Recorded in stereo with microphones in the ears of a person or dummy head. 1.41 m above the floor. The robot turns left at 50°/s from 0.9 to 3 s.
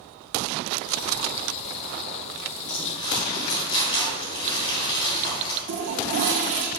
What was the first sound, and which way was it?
Crumpling, 45° left (ahead or behind).